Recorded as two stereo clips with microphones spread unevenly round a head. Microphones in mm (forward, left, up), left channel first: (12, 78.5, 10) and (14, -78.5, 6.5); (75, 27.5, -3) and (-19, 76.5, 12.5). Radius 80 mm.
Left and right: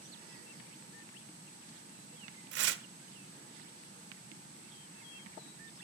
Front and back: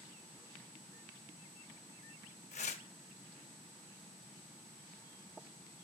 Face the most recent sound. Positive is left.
turn(degrees=-80)